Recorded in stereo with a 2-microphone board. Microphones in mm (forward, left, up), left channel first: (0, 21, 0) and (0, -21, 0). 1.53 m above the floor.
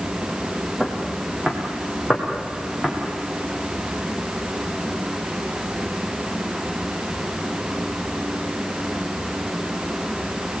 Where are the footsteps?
5° right (ahead or behind), 5 m; by 2.9 s 10° right (ahead or behind), 6 m.